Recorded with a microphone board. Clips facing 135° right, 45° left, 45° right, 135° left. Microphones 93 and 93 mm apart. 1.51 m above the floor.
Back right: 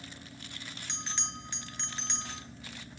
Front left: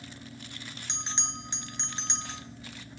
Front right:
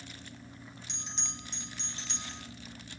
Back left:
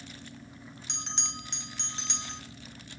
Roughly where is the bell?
Behind left.